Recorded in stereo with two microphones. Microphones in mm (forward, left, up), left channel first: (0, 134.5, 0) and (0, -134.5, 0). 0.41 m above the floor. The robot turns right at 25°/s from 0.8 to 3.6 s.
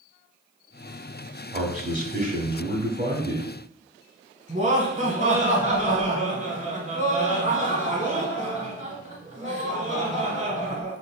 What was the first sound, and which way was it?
A man speaking, 125° right.